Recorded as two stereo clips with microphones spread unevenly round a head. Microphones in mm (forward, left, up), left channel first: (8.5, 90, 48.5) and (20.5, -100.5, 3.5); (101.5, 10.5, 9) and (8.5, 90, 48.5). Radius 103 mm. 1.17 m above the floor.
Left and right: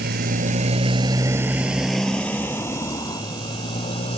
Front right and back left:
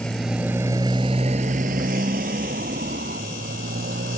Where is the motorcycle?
130° right; by 4.2 s 155° left.